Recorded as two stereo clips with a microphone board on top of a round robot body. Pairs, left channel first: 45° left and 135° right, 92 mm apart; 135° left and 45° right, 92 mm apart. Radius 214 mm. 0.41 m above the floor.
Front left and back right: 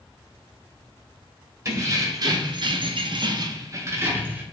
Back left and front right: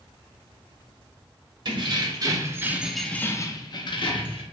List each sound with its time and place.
1.6 s keys jangling: 80° right, 0.9 m; by 4.4 s 155° left, 0.9 m